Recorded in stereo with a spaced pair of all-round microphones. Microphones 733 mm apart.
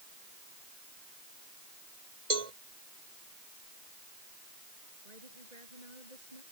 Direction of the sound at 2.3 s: 55° right (ahead or behind).